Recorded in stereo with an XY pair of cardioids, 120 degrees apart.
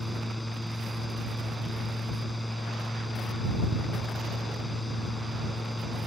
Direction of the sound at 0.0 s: 5° left.